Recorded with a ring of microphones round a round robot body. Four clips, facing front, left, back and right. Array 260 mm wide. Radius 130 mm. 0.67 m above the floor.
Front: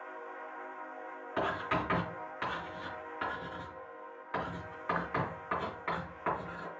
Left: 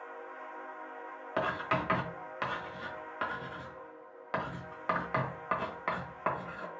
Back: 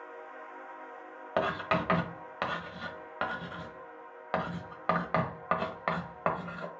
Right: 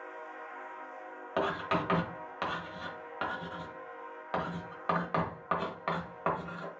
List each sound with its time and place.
1.4 s writing: 170° right, 1.3 m